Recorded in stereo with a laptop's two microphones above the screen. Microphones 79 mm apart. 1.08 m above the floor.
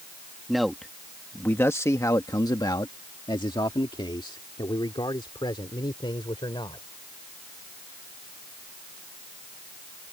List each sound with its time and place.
0.5 s a man speaking: 5° right (ahead or behind); by 6.8 s 80° left